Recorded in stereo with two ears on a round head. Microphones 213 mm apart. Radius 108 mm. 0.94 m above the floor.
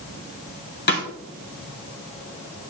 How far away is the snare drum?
About 2 m.